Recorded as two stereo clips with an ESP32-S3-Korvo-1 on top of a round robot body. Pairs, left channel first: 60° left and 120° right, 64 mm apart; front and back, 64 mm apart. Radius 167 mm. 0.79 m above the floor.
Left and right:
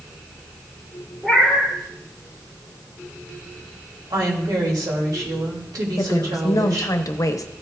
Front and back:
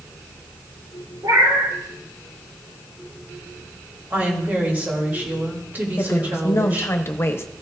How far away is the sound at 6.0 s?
About 1.0 m.